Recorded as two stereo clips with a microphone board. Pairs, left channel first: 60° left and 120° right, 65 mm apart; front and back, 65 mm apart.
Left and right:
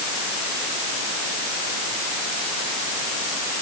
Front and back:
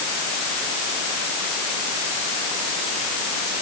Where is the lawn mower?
No lawn mower in this recording.